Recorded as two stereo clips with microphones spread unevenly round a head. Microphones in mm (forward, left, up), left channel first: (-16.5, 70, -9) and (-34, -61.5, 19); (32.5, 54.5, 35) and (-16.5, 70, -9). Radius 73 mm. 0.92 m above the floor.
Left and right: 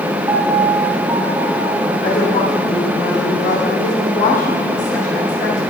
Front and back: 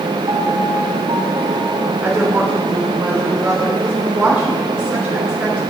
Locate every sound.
0.3 s a piano: 165° right, 2.5 m
2.0 s a woman speaking: 100° left, 3 m